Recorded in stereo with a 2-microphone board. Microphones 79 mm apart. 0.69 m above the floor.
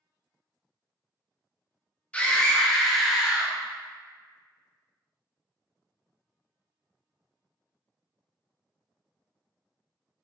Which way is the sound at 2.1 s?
15° left (ahead or behind).